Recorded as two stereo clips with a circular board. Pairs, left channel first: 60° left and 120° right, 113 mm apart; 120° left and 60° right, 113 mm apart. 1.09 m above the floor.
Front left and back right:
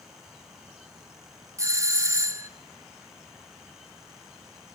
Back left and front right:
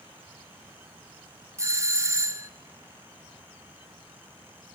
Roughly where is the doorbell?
Right.